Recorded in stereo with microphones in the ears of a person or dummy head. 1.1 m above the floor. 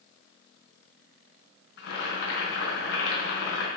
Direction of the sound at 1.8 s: 80° left.